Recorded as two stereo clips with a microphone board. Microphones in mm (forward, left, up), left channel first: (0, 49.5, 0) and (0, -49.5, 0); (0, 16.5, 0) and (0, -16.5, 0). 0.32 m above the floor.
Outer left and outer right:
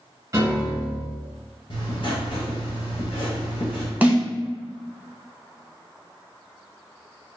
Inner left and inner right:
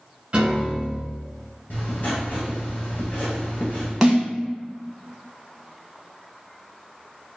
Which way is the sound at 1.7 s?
55° left (ahead or behind).